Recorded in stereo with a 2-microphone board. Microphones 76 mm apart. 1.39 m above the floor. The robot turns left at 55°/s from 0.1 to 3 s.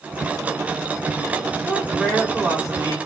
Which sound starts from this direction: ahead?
A man speaking, at 1.6 s.